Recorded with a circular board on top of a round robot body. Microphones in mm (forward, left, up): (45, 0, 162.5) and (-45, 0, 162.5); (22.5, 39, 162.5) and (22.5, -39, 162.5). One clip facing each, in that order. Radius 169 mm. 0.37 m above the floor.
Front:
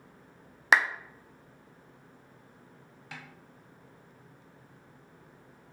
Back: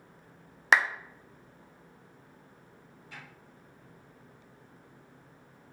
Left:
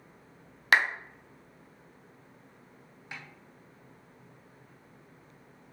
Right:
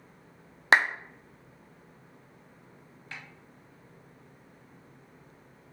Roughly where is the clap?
Right.